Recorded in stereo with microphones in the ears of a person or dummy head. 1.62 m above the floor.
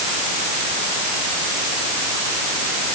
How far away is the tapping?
No tapping in this recording.